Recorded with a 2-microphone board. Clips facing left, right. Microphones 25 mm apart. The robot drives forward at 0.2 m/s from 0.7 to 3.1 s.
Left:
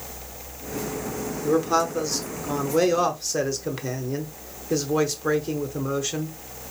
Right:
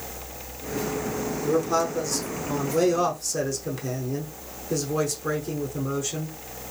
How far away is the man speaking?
About 0.8 m.